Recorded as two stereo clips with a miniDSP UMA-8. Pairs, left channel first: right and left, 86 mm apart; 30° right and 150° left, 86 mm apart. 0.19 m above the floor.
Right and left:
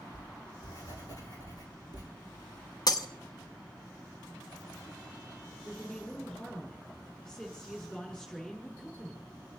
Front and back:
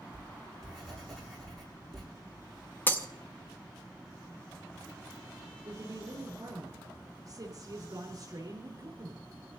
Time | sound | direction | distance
0.1 | writing | 115° right | 7 m
2.9 | breaking glass | 90° right | 0.9 m
5.6 | a woman speaking | 170° right | 5.5 m